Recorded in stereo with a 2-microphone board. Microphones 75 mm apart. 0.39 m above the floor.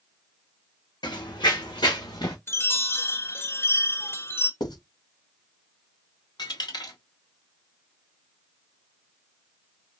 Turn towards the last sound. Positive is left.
turn(degrees=75)  # may be behind; listen again after turning